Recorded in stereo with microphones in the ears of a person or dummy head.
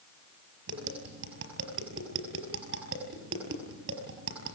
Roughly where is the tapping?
Right.